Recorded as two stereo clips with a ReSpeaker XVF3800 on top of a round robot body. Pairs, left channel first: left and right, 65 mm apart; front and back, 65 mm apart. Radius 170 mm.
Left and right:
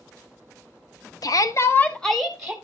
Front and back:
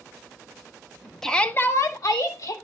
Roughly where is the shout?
Left.